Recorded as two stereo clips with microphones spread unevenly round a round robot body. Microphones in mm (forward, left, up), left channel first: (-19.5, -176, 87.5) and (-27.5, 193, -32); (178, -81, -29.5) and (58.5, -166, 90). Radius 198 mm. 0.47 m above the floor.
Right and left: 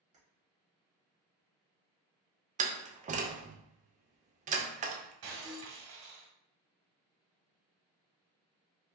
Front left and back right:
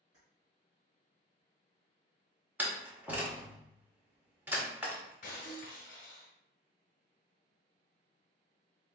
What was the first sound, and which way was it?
Keys jangling, 155° left.